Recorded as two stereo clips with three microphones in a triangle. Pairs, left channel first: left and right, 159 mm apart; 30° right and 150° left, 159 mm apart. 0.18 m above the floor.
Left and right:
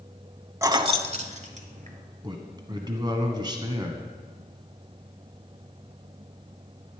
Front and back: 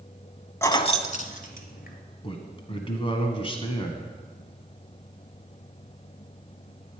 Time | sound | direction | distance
0.6 | keys jangling | 65° right | 0.7 m
2.2 | a man speaking | 50° right | 1.4 m